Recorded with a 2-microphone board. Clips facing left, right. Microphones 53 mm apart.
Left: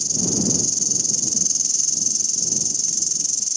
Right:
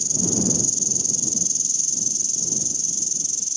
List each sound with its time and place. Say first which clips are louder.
0.0 s an insect: even; 80° left